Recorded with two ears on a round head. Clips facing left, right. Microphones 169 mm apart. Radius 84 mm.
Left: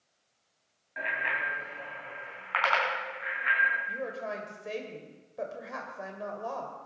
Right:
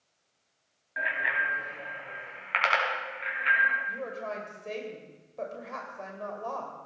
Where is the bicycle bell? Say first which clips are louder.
Right 1 dB; 5° right (ahead or behind), 3 m; by 3.8 s 40° right (ahead or behind), 5 m.